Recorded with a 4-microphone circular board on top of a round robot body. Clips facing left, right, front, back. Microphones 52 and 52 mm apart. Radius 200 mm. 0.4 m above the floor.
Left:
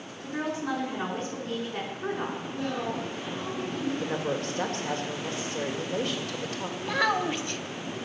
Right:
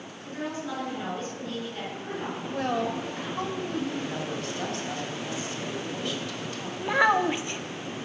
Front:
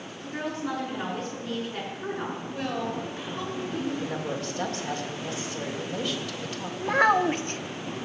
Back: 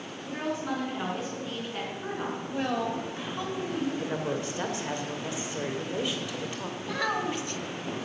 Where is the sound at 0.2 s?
90° left, 5.5 m.